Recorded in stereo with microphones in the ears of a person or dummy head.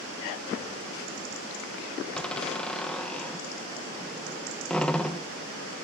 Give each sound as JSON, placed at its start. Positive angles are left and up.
{"t": 2.1, "sound": "a door slam", "side_deg": 5, "distance_m": 0.8}